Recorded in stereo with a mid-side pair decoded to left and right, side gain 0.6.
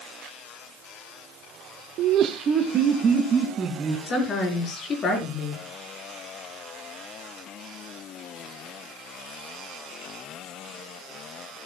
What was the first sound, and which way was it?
Laughter, 65° right.